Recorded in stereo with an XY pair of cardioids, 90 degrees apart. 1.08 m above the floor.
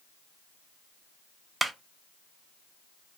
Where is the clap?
30° right, 0.6 m.